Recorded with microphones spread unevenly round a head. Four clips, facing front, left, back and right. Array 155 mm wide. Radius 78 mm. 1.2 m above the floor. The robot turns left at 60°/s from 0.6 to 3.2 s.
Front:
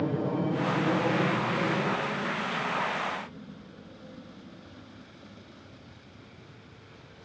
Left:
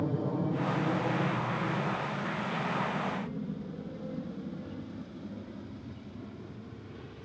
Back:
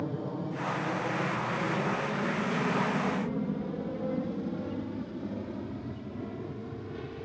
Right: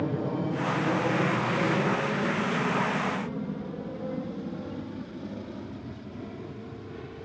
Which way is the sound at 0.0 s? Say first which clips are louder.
Right 2 dB, front 6 dB; 30° right.